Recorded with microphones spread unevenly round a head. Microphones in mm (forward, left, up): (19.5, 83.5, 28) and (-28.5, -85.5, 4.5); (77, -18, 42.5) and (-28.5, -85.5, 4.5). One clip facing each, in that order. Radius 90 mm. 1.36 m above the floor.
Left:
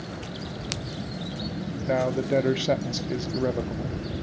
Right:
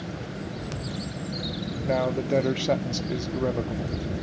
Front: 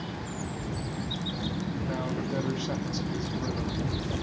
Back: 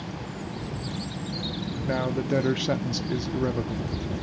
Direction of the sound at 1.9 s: 155° left.